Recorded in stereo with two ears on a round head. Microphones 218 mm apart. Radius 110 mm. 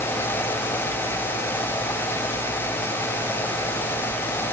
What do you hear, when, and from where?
Only background noise.